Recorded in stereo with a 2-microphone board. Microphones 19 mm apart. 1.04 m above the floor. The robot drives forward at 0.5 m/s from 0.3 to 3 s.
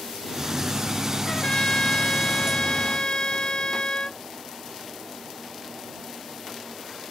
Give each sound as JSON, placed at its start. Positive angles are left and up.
{"t": 1.2, "sound": "a trumpet", "side_deg": 40}